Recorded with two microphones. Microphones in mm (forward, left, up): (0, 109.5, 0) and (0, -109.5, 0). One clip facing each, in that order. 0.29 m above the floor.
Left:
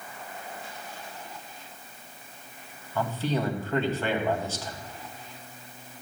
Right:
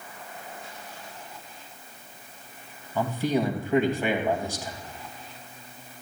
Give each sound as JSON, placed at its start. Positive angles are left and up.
{"t": 3.0, "sound": "a man speaking", "side_deg": -15, "distance_m": 1.9}